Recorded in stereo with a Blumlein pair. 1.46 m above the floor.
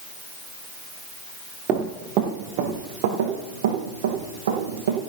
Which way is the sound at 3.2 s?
60° right.